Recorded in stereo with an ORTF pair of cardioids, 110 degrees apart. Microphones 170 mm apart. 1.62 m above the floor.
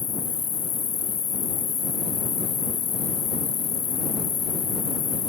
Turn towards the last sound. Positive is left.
turn(degrees=35)